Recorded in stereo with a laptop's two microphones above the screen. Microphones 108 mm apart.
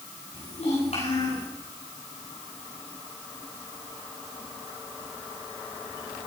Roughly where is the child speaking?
Left.